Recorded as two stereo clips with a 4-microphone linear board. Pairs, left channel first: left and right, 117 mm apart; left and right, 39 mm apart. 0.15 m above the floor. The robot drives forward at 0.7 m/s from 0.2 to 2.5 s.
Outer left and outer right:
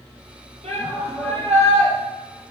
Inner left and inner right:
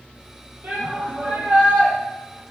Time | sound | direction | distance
0.6 | a shout | 65° right (ahead or behind) | 5 m